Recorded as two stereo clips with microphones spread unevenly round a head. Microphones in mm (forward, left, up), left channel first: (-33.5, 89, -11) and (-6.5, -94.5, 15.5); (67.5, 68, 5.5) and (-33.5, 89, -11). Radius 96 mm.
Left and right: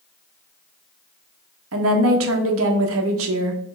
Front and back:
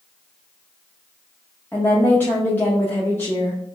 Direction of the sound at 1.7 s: 95° right.